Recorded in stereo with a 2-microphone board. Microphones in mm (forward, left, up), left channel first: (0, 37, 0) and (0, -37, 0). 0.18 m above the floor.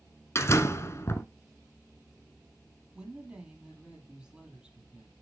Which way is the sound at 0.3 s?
40° left (ahead or behind).